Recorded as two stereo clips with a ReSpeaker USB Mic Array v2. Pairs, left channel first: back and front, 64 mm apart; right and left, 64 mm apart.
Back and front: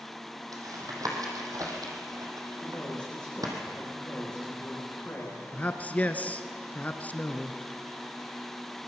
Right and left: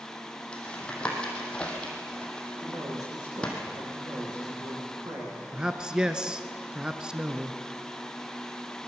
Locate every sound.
0.5 s tapping: 15° right, 4 m
2.6 s a man speaking: 105° left, 9.5 m
5.5 s a man speaking: 155° left, 1.2 m